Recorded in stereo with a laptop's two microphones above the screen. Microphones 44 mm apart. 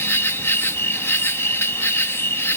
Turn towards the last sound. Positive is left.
turn(degrees=65)  # may be behind; listen again after turning